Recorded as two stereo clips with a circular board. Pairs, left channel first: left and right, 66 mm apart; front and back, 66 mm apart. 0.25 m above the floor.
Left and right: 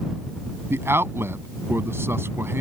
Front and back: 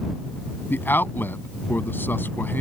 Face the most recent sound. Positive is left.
turn(degrees=-50)